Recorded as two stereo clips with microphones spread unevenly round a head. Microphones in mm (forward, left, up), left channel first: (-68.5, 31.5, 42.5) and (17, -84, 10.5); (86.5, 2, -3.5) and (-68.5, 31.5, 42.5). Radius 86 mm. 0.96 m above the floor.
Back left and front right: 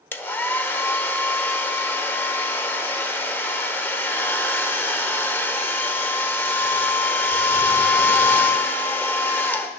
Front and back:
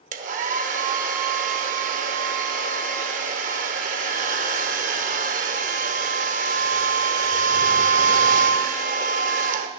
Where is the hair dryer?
165° right, 1.0 m.